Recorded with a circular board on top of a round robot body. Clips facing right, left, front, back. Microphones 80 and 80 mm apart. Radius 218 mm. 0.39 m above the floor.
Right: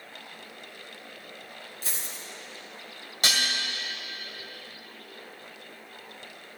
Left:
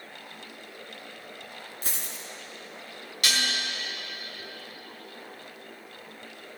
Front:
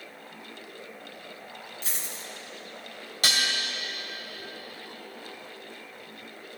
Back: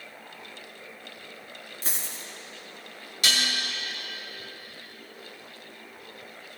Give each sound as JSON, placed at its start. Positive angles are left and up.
{"t": 1.8, "sound": "a dropped coin", "azimuth_deg": 130, "distance_m": 2.0}
{"t": 3.2, "sound": "dishes clattering", "azimuth_deg": -35, "distance_m": 2.5}